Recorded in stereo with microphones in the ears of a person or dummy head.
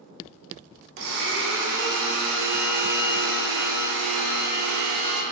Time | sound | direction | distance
1.0 | a blender | 65° right (ahead or behind) | 0.6 m